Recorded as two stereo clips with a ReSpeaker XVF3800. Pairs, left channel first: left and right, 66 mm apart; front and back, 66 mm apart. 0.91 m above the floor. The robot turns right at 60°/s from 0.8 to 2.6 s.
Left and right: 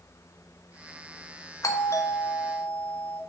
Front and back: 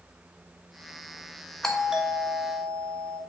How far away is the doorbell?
About 1.3 m.